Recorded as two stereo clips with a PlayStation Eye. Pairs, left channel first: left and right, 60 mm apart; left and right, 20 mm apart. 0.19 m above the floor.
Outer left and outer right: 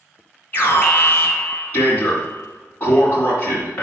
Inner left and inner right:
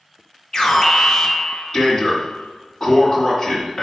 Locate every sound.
0.5 s an alarm: 25° left (ahead or behind), 2.5 m